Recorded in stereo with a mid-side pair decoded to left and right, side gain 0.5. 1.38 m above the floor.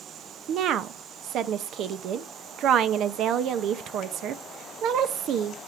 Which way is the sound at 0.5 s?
65° right.